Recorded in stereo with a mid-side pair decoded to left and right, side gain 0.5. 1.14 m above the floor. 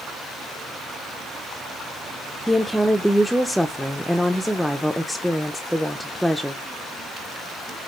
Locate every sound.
2.5 s a woman speaking: straight ahead, 0.5 m